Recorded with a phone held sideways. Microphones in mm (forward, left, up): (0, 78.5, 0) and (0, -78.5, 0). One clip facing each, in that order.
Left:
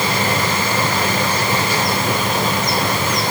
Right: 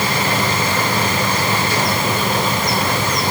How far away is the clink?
I don't hear a clink.